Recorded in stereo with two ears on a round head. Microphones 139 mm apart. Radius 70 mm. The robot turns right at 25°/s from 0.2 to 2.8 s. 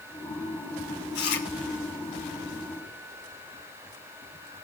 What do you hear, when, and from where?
1.1 s chewing: 80° left, 2.5 m; by 1.5 s 75° left (ahead or behind), 2.5 m